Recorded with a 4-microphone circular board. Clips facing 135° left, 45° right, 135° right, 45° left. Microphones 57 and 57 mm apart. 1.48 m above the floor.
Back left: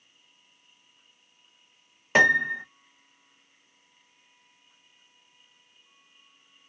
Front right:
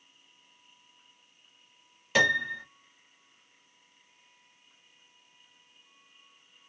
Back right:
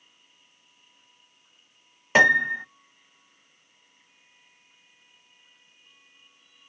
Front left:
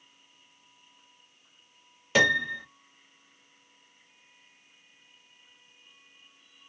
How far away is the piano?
About 0.8 m.